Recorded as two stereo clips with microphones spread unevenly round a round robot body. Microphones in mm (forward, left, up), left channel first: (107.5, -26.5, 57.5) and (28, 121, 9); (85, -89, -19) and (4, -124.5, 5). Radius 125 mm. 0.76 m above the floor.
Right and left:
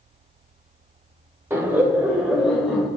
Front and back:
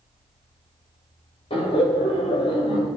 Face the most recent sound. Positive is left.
turn(degrees=25)